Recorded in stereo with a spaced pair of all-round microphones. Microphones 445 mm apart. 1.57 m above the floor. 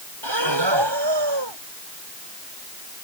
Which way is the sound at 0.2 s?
70° right (ahead or behind).